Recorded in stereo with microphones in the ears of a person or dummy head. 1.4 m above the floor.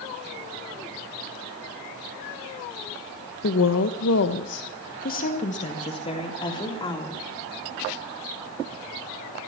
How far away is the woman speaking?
About 1.2 m.